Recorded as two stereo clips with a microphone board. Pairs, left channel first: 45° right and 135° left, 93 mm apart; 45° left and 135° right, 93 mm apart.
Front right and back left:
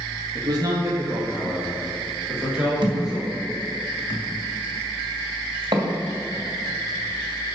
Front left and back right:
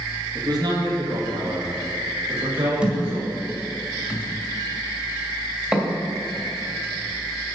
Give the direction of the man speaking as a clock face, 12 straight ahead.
6 o'clock.